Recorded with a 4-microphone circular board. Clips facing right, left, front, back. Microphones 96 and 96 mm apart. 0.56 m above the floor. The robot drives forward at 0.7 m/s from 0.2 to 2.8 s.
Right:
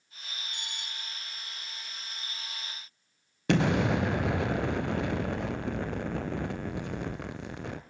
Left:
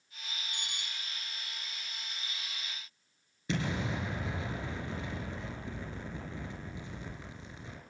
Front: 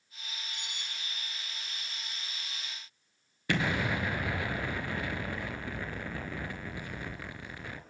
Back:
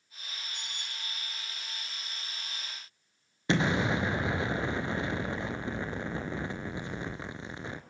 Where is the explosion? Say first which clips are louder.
Right 9 dB, back 3 dB; 115° right, 1.5 m.